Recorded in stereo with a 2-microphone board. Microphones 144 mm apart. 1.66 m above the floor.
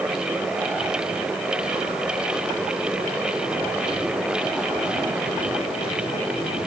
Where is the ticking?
No ticking in this recording.